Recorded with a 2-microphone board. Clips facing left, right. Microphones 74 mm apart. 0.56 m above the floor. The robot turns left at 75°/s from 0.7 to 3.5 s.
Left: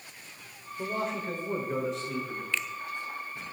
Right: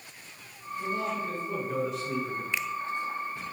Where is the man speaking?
85° left, 2 m; by 2.4 s 40° right, 2 m.